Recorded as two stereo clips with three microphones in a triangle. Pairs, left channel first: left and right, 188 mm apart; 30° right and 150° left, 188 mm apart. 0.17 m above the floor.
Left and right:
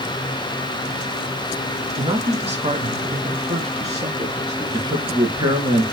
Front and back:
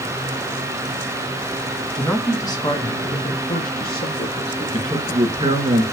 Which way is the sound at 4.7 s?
150° right.